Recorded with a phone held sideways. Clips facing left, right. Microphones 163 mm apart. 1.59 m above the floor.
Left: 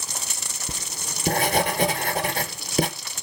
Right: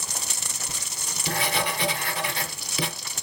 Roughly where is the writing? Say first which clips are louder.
Left 3 dB; left.